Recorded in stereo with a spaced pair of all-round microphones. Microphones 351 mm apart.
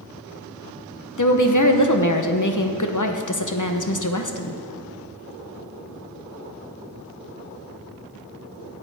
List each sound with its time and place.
1.2 s a woman speaking: 55° left (ahead or behind), 0.8 m